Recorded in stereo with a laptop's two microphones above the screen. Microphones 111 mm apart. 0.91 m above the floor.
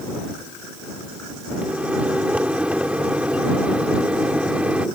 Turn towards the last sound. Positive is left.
turn(degrees=-10)  # may be behind; listen again after turning